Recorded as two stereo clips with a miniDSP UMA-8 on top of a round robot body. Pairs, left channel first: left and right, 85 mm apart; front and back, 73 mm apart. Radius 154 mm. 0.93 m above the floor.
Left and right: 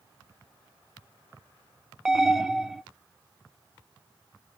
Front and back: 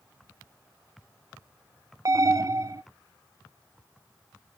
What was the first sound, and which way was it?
An alarm, 175° right.